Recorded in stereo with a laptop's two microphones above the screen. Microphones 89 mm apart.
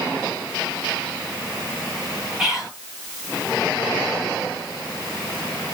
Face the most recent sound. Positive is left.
turn(degrees=-5)  # may be behind; listen again after turning